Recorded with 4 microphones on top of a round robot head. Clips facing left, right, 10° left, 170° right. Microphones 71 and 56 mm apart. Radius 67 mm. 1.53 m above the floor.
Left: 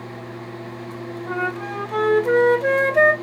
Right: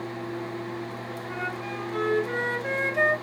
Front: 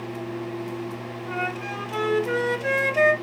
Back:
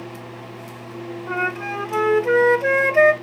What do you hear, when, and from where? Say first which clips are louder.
1.3 s a flute: left 8 dB, back 5 dB; 135° left, 1.1 m